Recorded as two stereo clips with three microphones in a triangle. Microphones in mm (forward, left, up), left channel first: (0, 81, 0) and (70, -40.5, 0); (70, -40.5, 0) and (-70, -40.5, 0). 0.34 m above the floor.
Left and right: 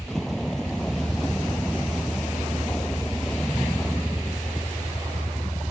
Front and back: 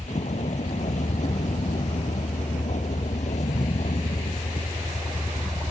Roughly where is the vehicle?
Ahead left.